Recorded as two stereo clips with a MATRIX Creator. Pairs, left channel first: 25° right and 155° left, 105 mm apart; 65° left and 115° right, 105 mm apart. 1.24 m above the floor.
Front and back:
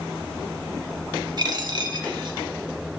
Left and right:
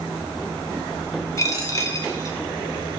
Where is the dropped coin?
120° left, 1.3 m.